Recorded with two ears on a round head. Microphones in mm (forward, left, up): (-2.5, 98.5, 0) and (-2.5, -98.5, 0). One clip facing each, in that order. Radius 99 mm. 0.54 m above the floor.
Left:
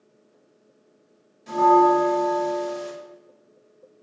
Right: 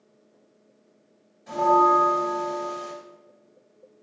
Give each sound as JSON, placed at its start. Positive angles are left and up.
{"t": 1.5, "sound": "a bell", "side_deg": 45, "distance_m": 1.5}